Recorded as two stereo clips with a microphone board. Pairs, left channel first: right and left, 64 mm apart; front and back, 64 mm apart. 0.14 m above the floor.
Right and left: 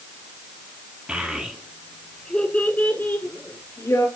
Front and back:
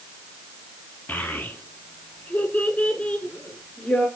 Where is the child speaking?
35° left, 1.2 m; by 4.1 s 70° right, 1.7 m.